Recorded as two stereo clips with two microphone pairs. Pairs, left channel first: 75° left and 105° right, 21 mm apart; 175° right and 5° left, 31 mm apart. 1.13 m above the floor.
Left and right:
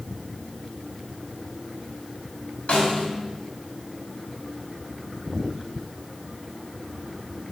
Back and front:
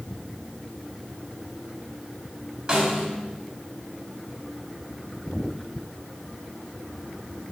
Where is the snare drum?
75° left, 2.5 m.